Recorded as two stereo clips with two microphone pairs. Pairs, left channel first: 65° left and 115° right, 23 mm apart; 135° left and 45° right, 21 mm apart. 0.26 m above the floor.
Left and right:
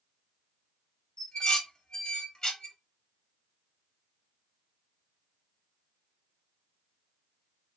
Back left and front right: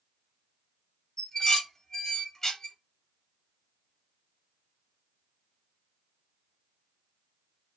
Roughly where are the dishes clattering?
Left.